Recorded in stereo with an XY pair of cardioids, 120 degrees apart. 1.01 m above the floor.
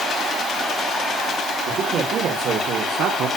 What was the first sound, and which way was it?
A man speaking, 65° right.